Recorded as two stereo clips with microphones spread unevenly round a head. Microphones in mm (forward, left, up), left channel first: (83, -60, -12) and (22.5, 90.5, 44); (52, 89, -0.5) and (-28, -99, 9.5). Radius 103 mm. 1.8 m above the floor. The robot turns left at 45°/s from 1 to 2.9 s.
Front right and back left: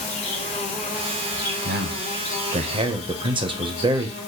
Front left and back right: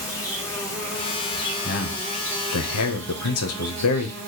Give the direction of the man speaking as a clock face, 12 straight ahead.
8 o'clock.